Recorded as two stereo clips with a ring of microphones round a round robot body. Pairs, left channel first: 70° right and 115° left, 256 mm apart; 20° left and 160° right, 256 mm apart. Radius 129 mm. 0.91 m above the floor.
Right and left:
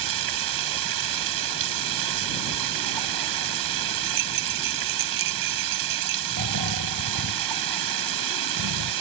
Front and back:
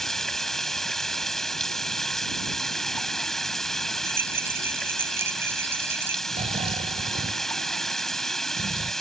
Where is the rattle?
120° left.